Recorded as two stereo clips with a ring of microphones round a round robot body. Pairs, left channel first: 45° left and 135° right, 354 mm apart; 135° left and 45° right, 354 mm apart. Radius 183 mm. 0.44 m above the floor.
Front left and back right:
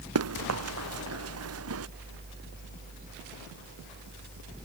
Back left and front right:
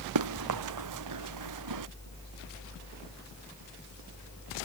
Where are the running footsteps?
85° right.